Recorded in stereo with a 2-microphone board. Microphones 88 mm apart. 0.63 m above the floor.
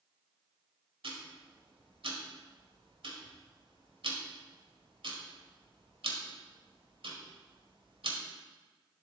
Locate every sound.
1.0 s ticking: 80° right, 1.5 m